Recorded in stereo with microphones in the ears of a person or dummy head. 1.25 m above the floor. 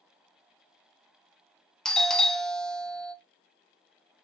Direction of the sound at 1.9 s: 5° left (ahead or behind).